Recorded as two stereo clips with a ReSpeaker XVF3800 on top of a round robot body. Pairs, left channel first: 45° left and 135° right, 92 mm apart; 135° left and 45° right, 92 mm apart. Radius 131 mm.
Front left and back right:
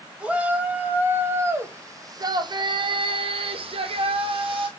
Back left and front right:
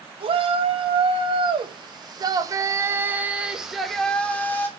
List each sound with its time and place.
0.2 s a shout: 60° right, 2.5 m; by 4.7 s 155° right, 1.7 m